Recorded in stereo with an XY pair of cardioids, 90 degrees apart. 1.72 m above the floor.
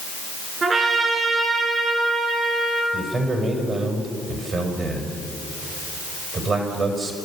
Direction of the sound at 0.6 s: 40° right.